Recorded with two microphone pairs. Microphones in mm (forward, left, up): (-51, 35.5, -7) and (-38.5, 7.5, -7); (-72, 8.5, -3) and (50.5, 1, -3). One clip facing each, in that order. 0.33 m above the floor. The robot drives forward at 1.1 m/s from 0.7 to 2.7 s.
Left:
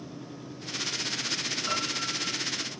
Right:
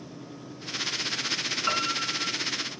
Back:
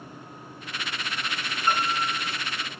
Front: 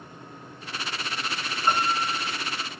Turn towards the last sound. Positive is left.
turn(degrees=-90)